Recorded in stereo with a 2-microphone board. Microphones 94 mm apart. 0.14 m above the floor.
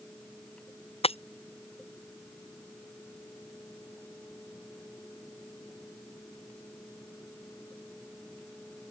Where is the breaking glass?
85° left.